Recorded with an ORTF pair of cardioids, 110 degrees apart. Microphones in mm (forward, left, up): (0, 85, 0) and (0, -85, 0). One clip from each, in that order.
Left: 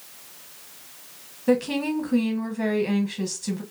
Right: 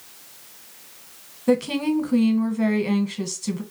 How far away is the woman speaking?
About 0.9 m.